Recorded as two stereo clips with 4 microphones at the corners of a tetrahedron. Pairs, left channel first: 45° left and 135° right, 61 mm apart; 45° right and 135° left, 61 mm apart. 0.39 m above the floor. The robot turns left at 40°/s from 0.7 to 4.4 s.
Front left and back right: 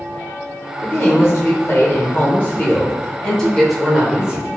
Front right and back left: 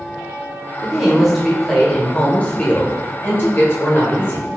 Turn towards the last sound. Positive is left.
turn(degrees=-70)